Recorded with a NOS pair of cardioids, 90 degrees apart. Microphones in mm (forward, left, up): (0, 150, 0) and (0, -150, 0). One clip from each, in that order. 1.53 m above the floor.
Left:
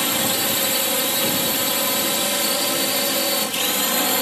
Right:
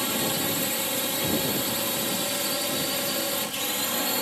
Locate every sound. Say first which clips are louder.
0.0 s a drone: left 6 dB; 50° left